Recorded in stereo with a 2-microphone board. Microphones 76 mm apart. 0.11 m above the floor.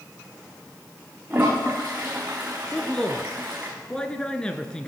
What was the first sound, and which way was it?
A toilet flushing, 25° right (ahead or behind).